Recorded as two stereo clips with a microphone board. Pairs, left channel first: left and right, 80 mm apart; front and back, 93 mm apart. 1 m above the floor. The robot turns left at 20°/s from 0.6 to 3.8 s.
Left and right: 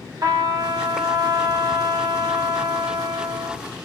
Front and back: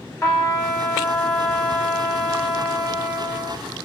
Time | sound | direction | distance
0.2 | a trumpet | 55° right | 1.1 m